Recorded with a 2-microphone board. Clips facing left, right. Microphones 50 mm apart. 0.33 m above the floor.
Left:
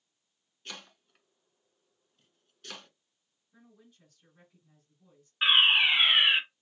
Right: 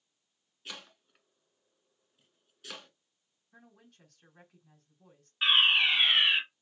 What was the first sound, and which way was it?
Chopping, 5° right (ahead or behind).